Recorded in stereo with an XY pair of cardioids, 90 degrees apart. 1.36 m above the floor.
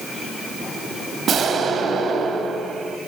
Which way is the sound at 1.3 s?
65° right.